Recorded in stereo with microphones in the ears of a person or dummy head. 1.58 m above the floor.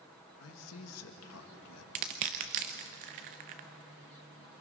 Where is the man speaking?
85° left, 2 m.